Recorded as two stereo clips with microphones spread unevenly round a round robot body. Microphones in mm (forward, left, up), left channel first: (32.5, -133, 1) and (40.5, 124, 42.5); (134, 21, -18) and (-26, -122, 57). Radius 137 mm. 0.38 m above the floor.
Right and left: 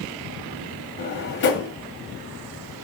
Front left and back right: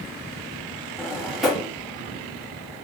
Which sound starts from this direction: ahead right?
A drawer, at 1.0 s.